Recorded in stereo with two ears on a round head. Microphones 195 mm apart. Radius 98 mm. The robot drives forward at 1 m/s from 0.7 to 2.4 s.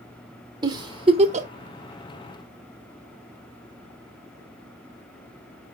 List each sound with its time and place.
0.6 s a giggle: 20° right (ahead or behind), 1.7 m; by 1.5 s 35° right (ahead or behind), 1.0 m